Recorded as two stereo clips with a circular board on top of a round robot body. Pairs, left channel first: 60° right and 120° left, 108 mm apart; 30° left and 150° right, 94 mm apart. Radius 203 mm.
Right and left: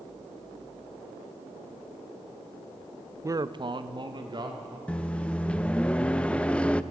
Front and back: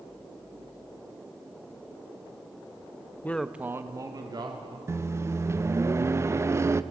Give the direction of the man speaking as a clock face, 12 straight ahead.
9 o'clock.